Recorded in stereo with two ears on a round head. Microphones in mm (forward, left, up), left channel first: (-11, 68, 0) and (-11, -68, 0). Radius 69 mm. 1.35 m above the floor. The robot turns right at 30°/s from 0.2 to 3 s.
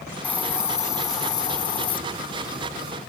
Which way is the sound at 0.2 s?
15° left.